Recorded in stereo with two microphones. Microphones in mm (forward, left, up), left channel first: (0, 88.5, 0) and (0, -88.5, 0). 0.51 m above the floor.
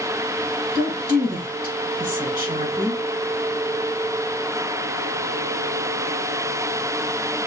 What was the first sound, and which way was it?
A woman speaking, 65° right (ahead or behind).